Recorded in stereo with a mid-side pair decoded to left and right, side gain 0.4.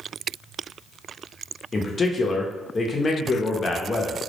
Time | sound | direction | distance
1.7 | a man speaking | 40° left | 0.6 m